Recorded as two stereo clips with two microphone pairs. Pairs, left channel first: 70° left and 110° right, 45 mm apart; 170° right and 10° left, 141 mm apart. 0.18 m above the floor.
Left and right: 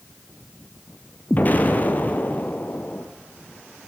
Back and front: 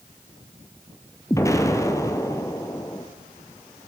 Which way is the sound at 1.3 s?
125° left.